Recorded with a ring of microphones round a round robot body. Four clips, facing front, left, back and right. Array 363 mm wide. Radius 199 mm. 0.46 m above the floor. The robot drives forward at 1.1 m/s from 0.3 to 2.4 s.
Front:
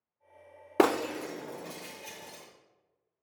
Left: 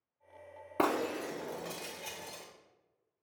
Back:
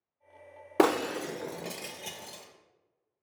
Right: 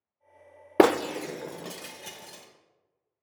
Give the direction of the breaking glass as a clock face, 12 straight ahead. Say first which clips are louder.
Right 10 dB, even; 3 o'clock.